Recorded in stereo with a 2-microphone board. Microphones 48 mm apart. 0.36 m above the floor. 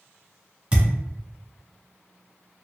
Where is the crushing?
I don't hear crushing.